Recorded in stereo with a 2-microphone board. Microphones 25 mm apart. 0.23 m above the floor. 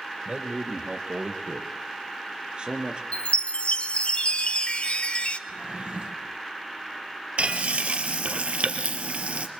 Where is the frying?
70° right (ahead or behind), 3 m.